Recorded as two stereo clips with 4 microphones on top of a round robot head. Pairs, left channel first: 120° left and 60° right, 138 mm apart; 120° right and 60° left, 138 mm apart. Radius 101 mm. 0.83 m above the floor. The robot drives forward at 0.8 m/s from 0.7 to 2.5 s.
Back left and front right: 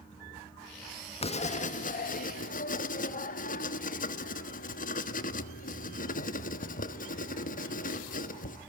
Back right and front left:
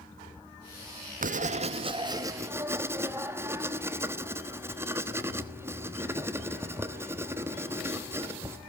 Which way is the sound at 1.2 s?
75° left.